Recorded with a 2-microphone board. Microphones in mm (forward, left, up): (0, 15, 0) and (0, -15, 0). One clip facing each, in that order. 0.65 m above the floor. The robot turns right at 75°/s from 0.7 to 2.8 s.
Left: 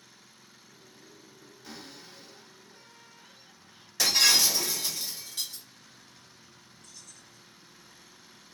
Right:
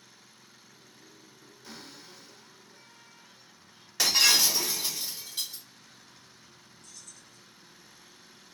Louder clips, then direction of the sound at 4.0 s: Even; 20° right (ahead or behind).